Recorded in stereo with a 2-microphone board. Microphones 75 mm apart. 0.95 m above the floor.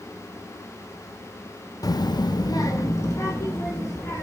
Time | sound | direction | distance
1.8 | a child speaking | 55° left (ahead or behind) | 0.5 m